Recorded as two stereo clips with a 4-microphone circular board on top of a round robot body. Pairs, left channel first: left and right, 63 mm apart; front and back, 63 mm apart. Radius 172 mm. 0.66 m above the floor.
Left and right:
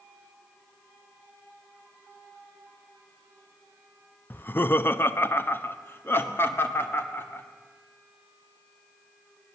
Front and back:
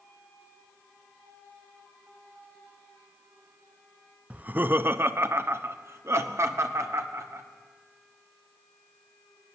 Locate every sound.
4.3 s laughter: 125° left, 0.7 m; by 7.4 s 140° left, 2.5 m